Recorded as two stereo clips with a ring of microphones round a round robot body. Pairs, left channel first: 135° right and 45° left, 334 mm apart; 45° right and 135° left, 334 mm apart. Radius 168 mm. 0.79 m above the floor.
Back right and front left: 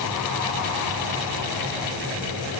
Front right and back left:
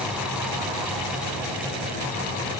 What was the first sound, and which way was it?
Only background noise.